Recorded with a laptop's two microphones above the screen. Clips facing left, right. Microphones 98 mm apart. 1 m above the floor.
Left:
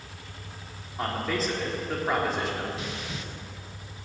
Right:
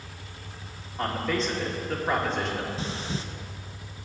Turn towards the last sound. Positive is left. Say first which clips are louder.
# right 3 dB
turn(degrees=-30)  # may be behind; listen again after turning